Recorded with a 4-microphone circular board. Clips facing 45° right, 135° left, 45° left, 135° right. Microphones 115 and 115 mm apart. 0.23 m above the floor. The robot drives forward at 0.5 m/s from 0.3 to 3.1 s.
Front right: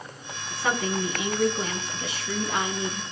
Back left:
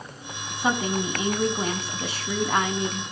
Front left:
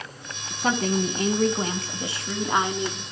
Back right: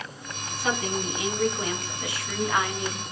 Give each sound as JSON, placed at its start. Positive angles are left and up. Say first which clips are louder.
{"t": 0.5, "sound": "a woman speaking", "louder": "back left 2 dB, front left 4 dB", "azimuth_deg": 65, "distance_m": 1.8}